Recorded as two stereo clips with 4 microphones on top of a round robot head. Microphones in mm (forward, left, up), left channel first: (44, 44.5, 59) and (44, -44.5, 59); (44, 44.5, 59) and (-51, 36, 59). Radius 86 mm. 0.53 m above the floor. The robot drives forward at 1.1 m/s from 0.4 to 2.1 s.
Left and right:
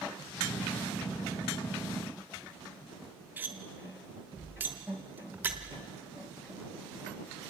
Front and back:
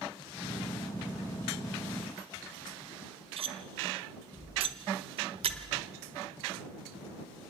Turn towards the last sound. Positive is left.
turn(degrees=-160)